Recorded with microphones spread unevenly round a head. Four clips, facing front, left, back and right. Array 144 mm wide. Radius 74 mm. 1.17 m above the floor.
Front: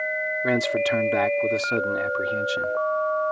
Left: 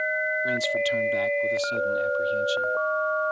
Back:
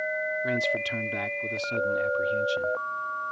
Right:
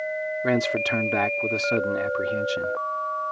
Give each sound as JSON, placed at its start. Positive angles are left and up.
{"t": 0.4, "sound": "a man speaking", "azimuth_deg": -50}